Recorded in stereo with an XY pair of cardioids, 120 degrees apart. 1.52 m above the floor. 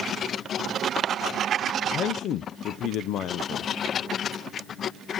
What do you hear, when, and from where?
1.9 s a man speaking: 65° left, 0.7 m